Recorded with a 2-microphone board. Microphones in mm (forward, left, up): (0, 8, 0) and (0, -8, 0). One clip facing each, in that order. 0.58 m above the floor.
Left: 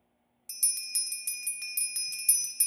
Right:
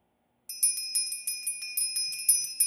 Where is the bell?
Centre (ahead or behind), 0.7 m.